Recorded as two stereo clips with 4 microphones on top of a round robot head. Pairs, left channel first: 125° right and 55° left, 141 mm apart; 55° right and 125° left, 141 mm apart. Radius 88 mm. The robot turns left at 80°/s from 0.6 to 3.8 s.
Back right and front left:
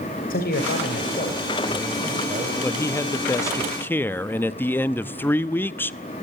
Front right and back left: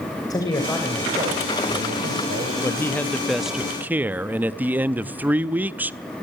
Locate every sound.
0.3 s a man speaking: 115° right, 3 m; by 2.5 s 90° left, 3 m
2.6 s a man speaking: 80° right, 0.6 m; by 6.2 s 175° right, 0.6 m